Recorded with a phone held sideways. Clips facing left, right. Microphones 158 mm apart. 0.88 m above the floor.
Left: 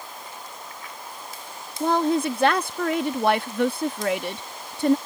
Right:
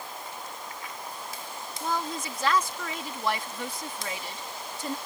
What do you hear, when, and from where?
1.8 s a woman speaking: 65° left (ahead or behind)